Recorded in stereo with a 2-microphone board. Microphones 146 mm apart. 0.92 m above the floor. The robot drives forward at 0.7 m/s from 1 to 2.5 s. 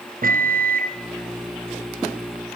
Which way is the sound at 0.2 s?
70° right (ahead or behind).